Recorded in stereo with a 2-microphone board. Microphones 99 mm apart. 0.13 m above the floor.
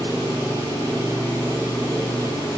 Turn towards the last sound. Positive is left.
turn(degrees=-35)  # may be behind; listen again after turning